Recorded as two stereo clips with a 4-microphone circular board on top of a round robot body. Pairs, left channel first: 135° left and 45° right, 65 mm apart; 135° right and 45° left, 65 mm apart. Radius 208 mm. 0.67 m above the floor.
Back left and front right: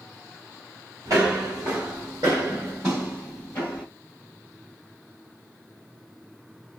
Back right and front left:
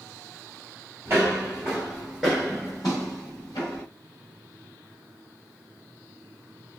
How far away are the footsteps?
About 1.1 m.